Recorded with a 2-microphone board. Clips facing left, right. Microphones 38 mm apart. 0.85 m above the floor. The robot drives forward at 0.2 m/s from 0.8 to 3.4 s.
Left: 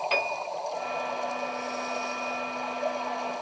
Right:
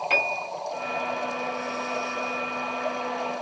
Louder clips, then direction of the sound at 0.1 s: Right 6 dB; 75° right (ahead or behind).